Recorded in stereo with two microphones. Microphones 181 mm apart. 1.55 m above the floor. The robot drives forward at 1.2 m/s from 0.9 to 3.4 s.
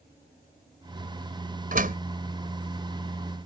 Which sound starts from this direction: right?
A door slam, at 1.7 s.